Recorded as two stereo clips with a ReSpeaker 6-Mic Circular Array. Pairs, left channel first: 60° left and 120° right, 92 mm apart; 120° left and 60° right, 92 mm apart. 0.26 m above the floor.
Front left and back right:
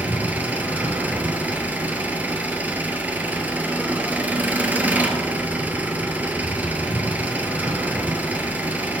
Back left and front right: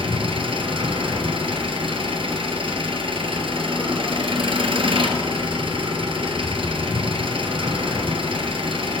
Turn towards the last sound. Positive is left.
turn(degrees=-50)